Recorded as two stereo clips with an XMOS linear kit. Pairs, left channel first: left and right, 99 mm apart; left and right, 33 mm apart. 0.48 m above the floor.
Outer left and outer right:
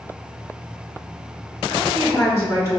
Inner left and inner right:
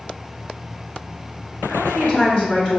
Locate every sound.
1.7 s a woman speaking: 30° left (ahead or behind), 1.7 m